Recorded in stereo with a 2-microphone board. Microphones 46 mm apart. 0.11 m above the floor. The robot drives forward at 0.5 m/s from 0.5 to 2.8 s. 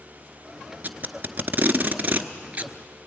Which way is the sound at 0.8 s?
35° right (ahead or behind).